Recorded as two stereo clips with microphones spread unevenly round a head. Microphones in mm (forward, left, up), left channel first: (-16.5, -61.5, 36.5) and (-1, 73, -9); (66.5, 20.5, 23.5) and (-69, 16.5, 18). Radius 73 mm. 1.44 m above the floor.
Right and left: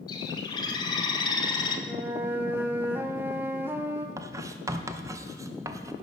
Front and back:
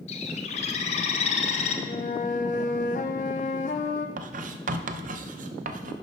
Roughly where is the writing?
Behind left.